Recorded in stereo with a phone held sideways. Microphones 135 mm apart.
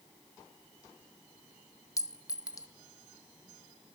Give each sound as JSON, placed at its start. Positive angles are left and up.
{"t": 2.0, "sound": "a clink", "side_deg": 25, "distance_m": 0.6}